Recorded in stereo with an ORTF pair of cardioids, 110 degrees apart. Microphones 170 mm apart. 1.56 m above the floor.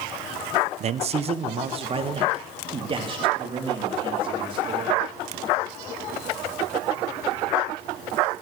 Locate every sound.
0.8 s a man speaking: 45° right, 0.6 m; by 5.1 s 30° right, 4.5 m